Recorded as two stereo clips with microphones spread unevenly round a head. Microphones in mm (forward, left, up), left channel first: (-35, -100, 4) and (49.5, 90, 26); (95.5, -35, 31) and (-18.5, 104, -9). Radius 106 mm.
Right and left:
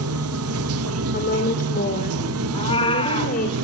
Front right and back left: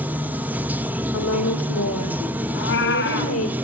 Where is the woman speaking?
60° right, 2.5 m.